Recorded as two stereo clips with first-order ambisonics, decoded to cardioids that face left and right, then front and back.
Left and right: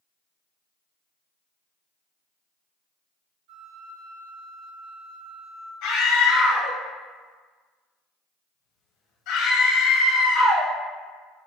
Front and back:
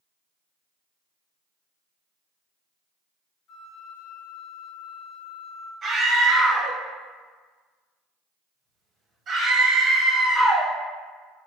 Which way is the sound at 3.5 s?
70° right.